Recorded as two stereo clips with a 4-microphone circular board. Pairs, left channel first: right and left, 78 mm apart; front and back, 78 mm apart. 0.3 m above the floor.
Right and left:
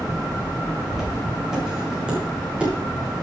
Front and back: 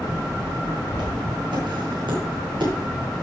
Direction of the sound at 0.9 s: 175° left.